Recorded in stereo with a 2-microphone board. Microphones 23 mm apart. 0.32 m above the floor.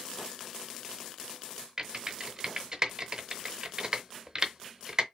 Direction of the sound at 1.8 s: 30° right (ahead or behind).